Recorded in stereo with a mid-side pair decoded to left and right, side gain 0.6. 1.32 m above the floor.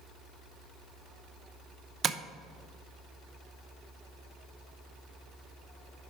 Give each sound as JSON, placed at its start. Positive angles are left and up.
{"t": 2.0, "sound": "tapping", "azimuth_deg": -40, "distance_m": 0.7}